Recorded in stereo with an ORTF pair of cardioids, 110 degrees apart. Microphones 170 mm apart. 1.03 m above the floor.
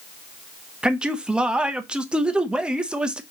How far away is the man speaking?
About 0.7 m.